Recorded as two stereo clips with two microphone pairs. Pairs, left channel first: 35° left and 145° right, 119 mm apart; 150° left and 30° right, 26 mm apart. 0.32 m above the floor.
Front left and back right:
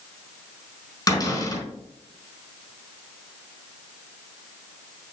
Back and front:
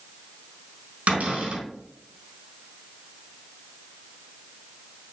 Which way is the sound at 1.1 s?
20° right.